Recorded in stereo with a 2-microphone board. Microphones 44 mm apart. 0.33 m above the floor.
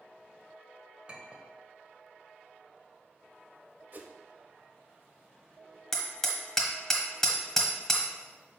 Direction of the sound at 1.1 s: 25° right (ahead or behind).